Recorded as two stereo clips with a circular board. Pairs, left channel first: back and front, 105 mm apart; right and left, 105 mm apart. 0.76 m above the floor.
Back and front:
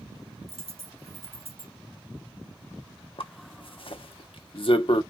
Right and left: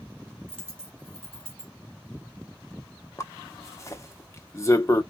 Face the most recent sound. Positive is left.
turn(degrees=-150)